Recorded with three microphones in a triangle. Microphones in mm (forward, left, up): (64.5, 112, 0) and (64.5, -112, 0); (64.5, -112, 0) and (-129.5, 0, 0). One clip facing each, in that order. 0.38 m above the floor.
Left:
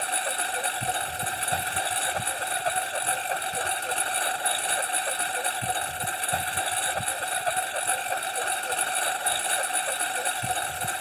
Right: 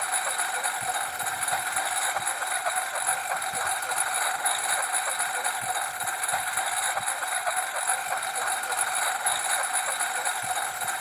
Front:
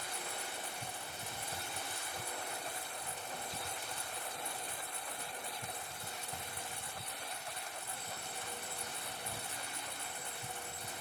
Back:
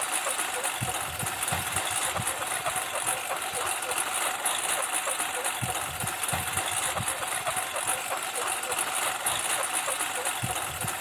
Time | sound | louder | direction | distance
0.0 | a lawn mower | left 2 dB, back 9 dB | 150° left | ?